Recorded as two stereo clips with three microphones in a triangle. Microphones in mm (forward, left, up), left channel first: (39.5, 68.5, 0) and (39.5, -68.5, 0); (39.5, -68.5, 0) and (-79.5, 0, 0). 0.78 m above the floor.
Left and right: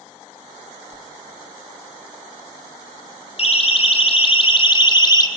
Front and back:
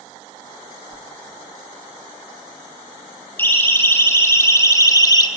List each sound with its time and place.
0.9 s a whoosh: 155° right, 1.7 m
3.4 s a siren: 45° left, 3.5 m; by 5.3 s 30° left, 1.7 m